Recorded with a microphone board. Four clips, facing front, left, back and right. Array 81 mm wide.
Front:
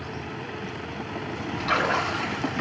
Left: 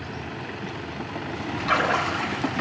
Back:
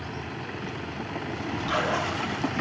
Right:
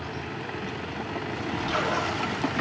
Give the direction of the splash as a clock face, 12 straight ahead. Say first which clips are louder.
Left 5 dB, front 3 dB; 10 o'clock.